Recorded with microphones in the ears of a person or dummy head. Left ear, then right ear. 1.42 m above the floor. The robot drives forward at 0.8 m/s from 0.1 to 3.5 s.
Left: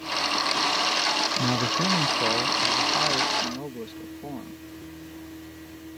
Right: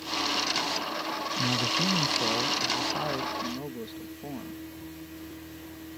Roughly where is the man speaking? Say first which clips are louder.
Left 2 dB; left.